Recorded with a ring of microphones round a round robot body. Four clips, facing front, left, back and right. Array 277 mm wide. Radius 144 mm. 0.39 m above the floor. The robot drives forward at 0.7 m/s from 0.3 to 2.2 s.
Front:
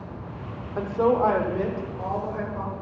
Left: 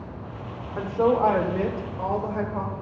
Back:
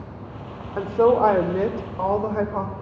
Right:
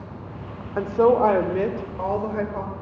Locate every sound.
0.8 s a woman speaking: 120° right, 1.1 m; by 2.7 s 160° right, 1.7 m